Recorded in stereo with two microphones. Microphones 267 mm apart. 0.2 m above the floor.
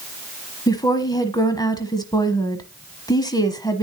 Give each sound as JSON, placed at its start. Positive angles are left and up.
{"t": 0.7, "sound": "a woman speaking", "side_deg": 15, "distance_m": 1.1}